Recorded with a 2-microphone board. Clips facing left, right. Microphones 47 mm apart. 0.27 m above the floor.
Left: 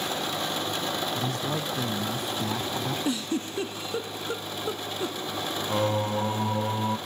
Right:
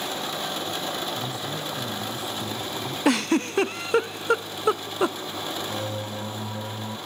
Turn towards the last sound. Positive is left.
turn(degrees=45)  # may be behind; listen again after turning